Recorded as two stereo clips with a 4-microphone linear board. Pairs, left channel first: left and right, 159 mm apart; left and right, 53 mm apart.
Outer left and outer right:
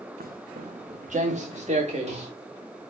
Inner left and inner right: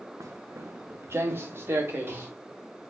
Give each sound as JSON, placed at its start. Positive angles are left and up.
{"t": 0.2, "sound": "footsteps", "side_deg": -65, "distance_m": 0.6}